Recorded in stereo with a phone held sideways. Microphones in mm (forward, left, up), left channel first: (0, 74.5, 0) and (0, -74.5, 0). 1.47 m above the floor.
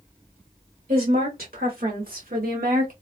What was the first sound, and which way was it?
A woman speaking, 90° right.